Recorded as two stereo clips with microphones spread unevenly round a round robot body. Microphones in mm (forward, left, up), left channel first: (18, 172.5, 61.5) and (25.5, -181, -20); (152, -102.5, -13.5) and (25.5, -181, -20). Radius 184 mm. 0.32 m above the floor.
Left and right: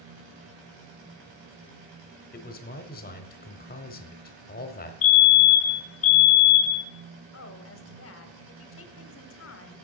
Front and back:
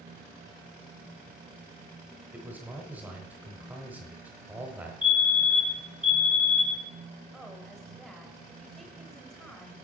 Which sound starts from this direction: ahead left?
A fire alarm, at 5.0 s.